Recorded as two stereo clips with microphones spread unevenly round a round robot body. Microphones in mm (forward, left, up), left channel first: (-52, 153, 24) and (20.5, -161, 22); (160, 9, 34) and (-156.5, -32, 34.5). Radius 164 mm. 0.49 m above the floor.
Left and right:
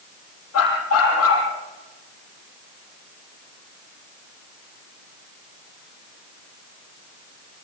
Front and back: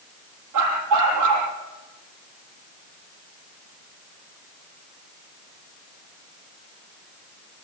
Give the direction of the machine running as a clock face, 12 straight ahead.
I don't hear a machine running.